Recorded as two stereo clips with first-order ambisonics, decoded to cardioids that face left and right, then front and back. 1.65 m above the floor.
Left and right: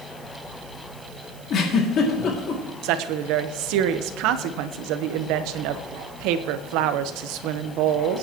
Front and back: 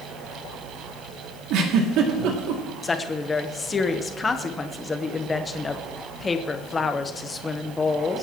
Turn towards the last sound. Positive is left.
turn(degrees=-75)